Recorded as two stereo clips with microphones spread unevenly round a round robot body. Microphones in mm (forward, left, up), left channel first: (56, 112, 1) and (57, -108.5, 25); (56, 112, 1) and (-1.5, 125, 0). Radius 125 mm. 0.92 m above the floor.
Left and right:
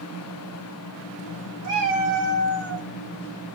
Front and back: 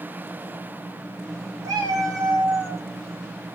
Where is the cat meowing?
160° right, 2.0 m; by 2.9 s 140° left, 1.4 m.